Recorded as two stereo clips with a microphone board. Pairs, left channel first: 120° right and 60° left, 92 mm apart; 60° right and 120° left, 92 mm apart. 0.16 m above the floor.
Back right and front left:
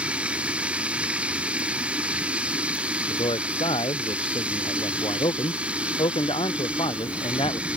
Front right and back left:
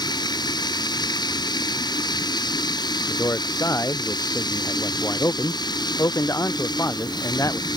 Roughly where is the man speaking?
Behind right.